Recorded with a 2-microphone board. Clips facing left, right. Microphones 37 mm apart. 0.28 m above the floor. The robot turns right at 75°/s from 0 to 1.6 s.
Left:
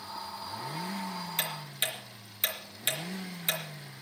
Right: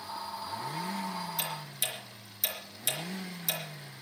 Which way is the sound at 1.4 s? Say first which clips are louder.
Left 2 dB; 65° left (ahead or behind).